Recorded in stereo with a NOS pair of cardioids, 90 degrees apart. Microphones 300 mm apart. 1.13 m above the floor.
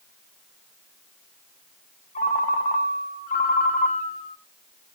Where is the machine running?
No machine running in this recording.